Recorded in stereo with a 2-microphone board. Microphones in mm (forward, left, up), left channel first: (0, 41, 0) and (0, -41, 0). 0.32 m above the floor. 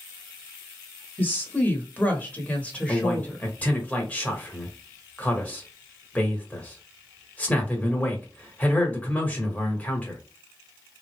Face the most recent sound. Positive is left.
turn(degrees=20)  # may be behind; listen again after turning